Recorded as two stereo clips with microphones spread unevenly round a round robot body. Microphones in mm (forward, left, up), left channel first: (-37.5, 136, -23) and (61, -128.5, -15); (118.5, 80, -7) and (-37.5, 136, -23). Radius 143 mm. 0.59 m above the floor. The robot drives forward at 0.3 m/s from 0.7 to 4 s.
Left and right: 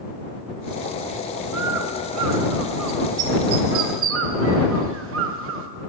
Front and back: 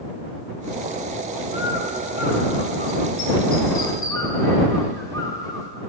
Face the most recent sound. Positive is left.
turn(degrees=-100)